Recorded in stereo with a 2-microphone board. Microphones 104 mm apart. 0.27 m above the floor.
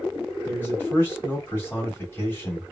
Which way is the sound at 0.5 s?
25° left (ahead or behind).